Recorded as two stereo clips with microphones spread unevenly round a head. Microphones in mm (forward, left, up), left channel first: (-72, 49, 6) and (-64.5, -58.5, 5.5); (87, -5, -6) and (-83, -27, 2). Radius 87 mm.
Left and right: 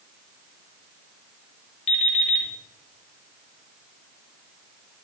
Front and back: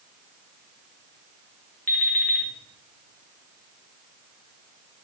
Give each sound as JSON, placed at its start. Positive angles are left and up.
{"t": 1.9, "sound": "an alarm clock", "azimuth_deg": 90, "distance_m": 1.5}